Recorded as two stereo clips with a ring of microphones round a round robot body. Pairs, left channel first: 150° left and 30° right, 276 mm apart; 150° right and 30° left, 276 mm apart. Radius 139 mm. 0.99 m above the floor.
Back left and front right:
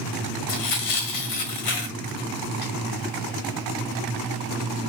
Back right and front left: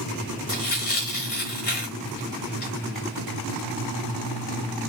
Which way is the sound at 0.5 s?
155° left.